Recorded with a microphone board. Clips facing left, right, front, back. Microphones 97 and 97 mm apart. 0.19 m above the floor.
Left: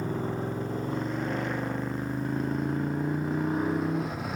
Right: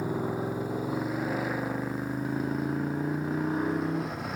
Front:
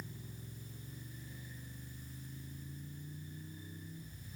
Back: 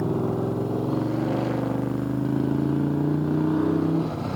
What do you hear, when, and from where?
0.0 s a motorcycle: 170° right; by 4.4 s straight behind